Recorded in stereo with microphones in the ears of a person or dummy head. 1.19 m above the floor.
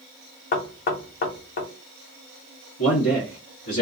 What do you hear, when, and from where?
0.5 s knocking: 45° left (ahead or behind), 0.6 m
2.8 s a man speaking: 80° left, 1.5 m